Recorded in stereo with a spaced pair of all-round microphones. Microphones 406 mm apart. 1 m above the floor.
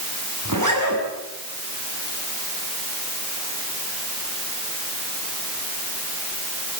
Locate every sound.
0.5 s a zipper: 45° right (ahead or behind), 7 m